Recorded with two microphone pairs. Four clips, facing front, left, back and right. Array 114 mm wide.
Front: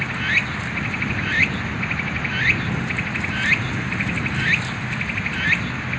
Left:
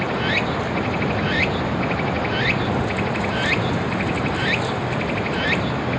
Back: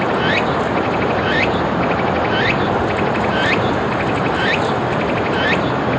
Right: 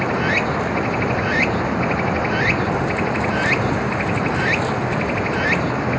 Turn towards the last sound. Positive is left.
turn(degrees=-175)